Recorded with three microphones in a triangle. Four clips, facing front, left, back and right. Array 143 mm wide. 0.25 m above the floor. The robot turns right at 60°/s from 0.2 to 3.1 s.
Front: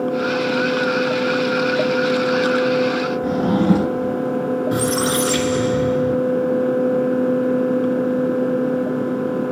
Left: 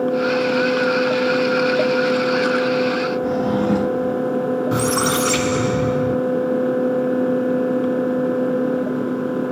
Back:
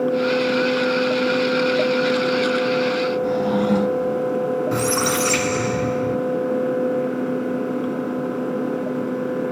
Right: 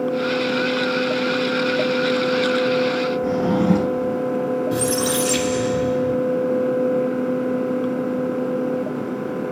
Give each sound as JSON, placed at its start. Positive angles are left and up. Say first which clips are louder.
{"t": 3.2, "sound": "a drawer", "louder": "right 2 dB, front 5 dB", "azimuth_deg": -35, "distance_m": 2.0}
{"t": 4.7, "sound": "a squeak", "louder": "left 2 dB, front 2 dB", "azimuth_deg": 100, "distance_m": 0.8}